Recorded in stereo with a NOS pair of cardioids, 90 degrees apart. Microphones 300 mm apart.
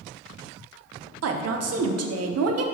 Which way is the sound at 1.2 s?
55° right.